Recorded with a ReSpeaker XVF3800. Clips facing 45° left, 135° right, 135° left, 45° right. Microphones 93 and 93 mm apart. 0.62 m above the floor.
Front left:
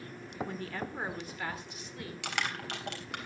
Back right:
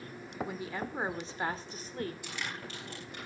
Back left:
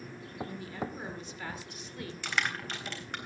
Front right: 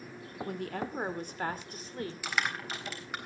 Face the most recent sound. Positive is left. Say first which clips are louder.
# front left 5 dB, back left 2 dB
turn(degrees=40)